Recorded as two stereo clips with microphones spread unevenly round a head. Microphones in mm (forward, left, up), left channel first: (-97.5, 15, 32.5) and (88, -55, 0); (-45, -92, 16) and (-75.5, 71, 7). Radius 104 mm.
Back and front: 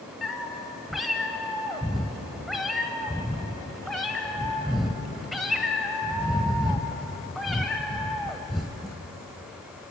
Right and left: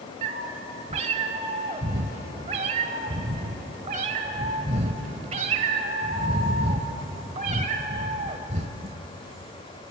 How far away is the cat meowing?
About 0.9 m.